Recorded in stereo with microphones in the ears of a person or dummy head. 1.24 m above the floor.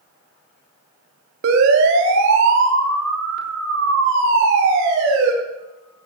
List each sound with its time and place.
1.4 s a siren: 60° right (ahead or behind), 2.5 m; by 5.3 s 65° right (ahead or behind), 4.5 m